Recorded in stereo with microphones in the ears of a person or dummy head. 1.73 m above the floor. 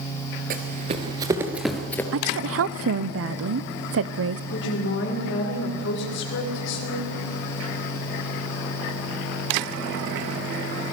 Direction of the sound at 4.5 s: 65° left (ahead or behind).